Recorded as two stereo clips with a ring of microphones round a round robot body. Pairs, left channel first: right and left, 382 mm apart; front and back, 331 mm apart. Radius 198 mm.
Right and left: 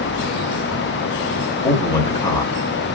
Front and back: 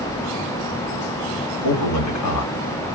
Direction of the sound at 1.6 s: 10° right.